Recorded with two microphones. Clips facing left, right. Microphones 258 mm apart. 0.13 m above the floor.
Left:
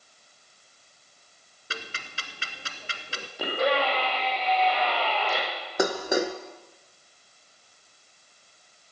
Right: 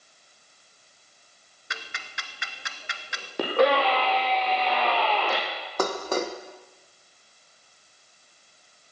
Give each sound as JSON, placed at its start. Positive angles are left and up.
{"t": 1.7, "sound": "ticking", "side_deg": 35, "distance_m": 1.3}
{"t": 3.4, "sound": "a scream", "side_deg": -70, "distance_m": 5.0}
{"t": 5.8, "sound": "dishes clattering", "side_deg": 10, "distance_m": 1.0}